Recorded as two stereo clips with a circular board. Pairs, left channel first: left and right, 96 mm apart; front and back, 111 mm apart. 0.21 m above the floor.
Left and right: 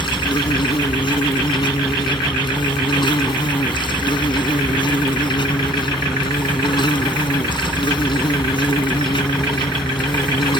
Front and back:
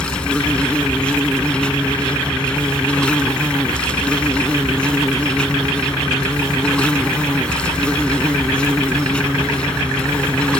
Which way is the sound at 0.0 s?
80° left.